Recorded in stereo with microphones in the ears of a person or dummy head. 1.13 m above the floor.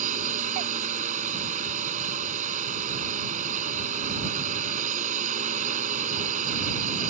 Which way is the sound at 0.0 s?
45° right (ahead or behind).